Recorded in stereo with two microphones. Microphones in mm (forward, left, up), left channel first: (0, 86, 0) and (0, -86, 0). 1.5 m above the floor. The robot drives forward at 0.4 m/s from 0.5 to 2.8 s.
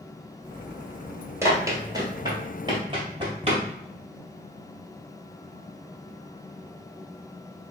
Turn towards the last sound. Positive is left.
turn(degrees=-30)  # may be behind; listen again after turning